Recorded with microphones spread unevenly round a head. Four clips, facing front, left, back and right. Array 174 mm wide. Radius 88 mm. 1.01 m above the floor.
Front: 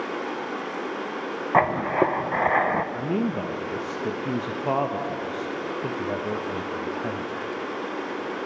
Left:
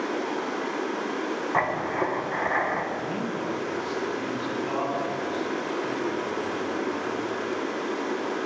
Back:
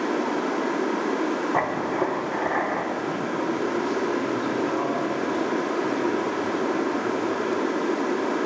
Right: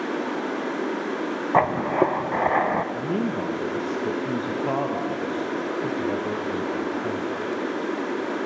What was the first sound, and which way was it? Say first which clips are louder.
Running water: right 1 dB, back 5 dB; 160° right.